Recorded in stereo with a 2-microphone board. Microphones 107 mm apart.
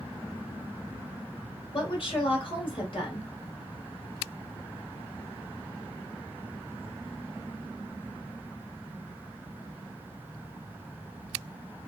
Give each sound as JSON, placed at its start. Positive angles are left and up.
{"t": 1.7, "sound": "a woman speaking", "side_deg": 55, "distance_m": 1.8}